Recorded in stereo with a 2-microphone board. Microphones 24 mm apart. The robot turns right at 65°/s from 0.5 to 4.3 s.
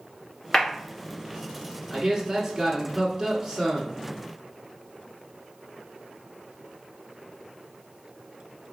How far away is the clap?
About 1.3 m.